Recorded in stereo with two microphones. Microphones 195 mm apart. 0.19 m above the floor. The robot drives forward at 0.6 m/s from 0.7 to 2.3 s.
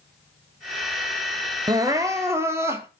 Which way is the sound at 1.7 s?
20° right (ahead or behind).